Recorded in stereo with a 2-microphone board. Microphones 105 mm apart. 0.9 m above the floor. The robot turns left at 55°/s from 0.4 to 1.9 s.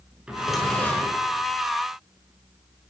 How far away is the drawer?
About 5.5 m.